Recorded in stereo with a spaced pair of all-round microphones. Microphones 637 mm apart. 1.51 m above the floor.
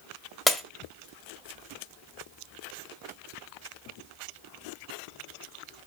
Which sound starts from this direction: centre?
Breaking glass, at 0.5 s.